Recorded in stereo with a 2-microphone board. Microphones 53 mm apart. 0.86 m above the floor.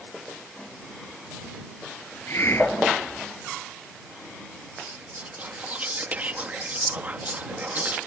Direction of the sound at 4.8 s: 30° right (ahead or behind).